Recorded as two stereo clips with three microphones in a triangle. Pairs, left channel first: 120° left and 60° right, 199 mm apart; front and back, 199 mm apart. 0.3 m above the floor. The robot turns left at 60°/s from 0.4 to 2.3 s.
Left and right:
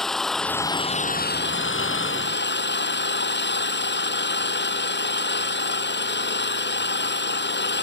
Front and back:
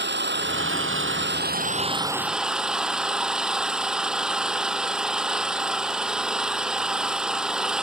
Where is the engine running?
150° right; by 7.8 s 95° left.